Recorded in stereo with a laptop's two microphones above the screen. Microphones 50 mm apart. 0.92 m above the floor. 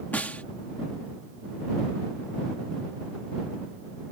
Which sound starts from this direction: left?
A snare drum, at 0.1 s.